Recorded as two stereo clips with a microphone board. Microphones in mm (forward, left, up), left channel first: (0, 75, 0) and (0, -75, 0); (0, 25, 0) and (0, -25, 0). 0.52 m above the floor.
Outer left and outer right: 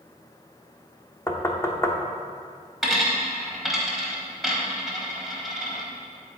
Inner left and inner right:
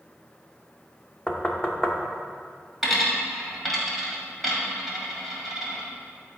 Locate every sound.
1.3 s knocking: 20° left (ahead or behind), 0.7 m
2.8 s a dropped coin: centre (ahead or behind), 1.5 m